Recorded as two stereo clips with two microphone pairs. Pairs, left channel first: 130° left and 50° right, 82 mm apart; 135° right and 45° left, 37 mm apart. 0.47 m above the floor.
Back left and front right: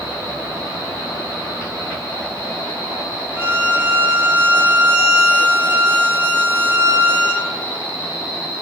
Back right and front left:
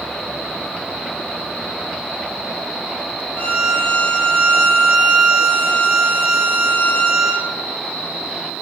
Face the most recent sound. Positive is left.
turn(degrees=-110)